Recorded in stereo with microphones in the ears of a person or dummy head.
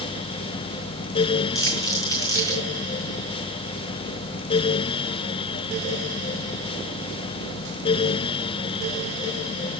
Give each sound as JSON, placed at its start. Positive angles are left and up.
{"t": 1.6, "sound": "crumpling", "side_deg": 15, "distance_m": 4.5}